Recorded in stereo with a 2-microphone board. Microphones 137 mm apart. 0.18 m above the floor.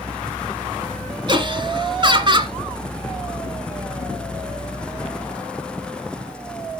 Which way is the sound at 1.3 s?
35° right (ahead or behind).